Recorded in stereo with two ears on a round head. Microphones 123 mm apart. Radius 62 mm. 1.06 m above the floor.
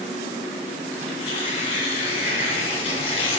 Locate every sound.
1.0 s tearing paper: 45° left (ahead or behind), 1.9 m